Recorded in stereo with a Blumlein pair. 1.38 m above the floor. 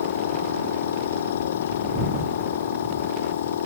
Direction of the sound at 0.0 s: 60° left.